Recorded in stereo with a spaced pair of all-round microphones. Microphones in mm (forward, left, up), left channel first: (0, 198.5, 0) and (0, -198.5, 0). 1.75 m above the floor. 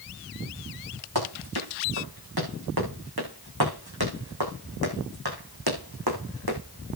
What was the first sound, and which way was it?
Running footsteps, 70° right (ahead or behind).